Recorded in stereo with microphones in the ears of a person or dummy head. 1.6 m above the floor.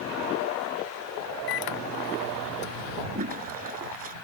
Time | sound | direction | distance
1.5 | a microwave | 60° left (ahead or behind) | ?
3.1 | a toilet flushing | 45° right (ahead or behind) | ?